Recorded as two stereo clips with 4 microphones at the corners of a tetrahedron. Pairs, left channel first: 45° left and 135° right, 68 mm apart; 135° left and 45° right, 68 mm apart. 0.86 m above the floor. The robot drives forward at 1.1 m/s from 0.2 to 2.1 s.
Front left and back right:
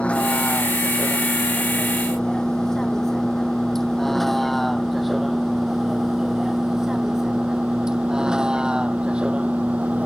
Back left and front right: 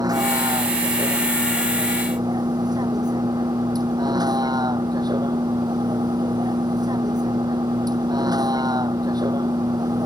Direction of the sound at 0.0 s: 25° right.